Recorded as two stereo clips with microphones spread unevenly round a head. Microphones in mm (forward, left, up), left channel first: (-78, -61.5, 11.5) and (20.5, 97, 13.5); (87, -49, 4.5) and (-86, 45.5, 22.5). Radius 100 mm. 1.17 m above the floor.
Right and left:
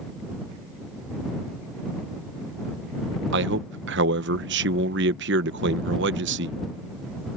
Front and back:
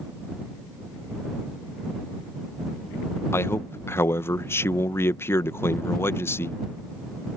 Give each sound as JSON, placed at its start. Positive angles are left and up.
{"t": 3.3, "sound": "a man speaking", "azimuth_deg": 45}